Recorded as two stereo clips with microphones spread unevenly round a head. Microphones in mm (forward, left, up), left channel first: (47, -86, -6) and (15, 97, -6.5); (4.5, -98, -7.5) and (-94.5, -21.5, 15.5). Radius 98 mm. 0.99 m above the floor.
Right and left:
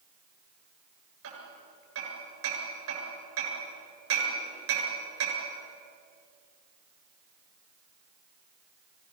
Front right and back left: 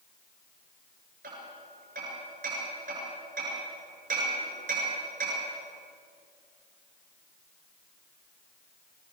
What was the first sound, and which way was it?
Hammering, 100° left.